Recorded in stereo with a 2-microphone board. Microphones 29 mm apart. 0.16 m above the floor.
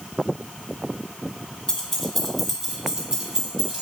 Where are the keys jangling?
25° left (ahead or behind), 1.0 m; by 3.8 s 30° right (ahead or behind), 1.7 m.